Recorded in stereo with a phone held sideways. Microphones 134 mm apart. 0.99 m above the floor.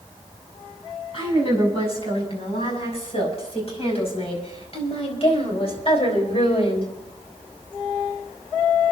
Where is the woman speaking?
45° left (ahead or behind), 7 m.